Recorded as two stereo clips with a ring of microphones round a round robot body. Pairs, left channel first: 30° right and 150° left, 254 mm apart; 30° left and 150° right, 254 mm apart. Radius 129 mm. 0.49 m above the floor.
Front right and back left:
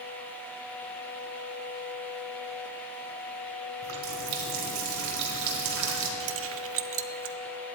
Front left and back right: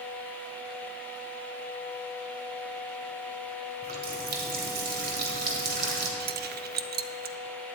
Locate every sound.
3.8 s a running tap: 155° left, 1.8 m
6.2 s keys jangling: 165° left, 0.6 m